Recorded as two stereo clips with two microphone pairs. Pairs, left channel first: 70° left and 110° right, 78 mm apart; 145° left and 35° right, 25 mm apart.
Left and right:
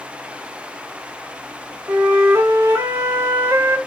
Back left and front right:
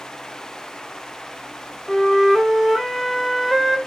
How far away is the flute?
About 1.0 m.